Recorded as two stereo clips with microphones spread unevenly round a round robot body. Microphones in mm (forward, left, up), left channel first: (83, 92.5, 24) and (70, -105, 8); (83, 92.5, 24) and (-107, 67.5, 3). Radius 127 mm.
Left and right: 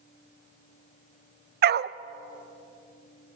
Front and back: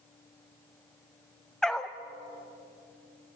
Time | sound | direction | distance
1.6 | a dog barking | 85° right | 0.6 m